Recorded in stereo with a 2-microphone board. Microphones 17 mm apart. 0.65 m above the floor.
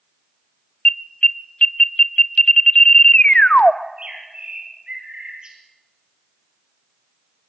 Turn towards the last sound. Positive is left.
turn(degrees=-45)  # may be behind; listen again after turning